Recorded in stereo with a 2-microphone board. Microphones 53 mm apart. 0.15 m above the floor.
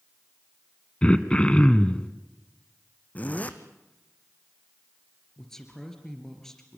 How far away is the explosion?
No explosion in this recording.